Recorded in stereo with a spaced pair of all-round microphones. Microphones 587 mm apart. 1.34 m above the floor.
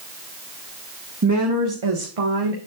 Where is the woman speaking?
25° right (ahead or behind), 1.5 m; by 2.6 s 70° right (ahead or behind), 1.9 m.